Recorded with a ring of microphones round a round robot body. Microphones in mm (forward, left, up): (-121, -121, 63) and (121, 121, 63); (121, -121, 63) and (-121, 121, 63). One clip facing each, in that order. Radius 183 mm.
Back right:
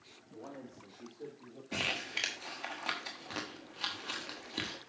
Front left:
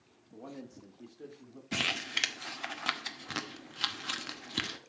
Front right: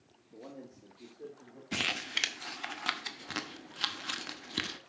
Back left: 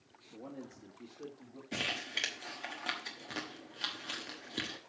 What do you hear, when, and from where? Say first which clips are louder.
0.3 s a man speaking: front left 2 dB, back left 1 dB; 60° left, 1.4 m; by 1.6 s 95° left, 1.8 m
1.7 s crumpling: front left 2 dB, front right 3 dB; 10° left, 1.0 m